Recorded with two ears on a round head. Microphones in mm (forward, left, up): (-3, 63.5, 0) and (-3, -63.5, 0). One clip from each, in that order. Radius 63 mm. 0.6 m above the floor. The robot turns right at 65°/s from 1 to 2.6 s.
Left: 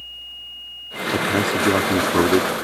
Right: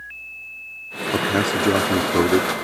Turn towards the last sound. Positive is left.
turn(degrees=60)